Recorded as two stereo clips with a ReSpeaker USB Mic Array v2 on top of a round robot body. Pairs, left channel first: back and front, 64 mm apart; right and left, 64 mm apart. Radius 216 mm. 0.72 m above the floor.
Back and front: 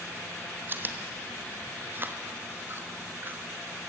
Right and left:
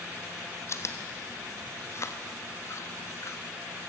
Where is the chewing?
55° right, 1.4 m.